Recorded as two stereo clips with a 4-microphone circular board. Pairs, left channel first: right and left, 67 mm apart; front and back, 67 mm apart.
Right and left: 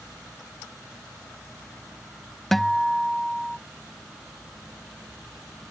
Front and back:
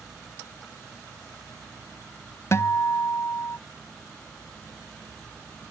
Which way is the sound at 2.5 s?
5° right.